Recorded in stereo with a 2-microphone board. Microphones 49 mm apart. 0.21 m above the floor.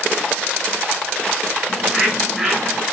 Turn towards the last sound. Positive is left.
turn(degrees=-5)  # may be behind; listen again after turning